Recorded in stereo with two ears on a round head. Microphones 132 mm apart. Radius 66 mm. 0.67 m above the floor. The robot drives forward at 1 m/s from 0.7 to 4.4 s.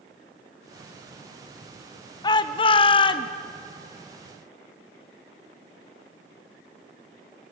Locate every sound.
2.2 s a shout: 30° left (ahead or behind), 1.0 m